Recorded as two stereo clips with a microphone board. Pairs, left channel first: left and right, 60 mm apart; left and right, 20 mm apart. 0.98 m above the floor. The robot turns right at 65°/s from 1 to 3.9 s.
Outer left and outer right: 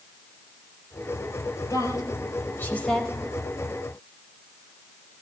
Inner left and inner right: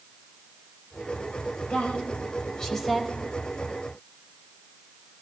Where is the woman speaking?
85° left, 4.5 m; by 3.1 s centre (ahead or behind), 4.5 m.